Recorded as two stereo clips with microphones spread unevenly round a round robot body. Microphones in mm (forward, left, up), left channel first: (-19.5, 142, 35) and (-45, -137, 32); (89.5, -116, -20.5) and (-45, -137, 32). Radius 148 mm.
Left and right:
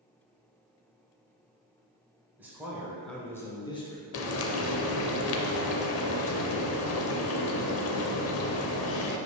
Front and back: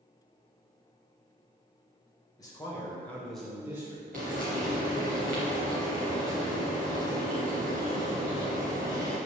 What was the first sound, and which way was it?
A man speaking, 15° right.